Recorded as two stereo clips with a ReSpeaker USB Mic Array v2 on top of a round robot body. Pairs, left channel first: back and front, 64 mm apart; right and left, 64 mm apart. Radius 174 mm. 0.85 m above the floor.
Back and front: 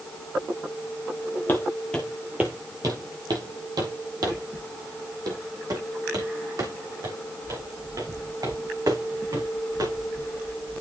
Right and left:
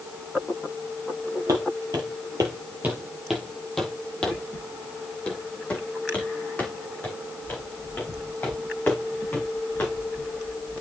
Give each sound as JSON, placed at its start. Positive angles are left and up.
{"t": 1.5, "sound": "footsteps", "azimuth_deg": 120, "distance_m": 1.1}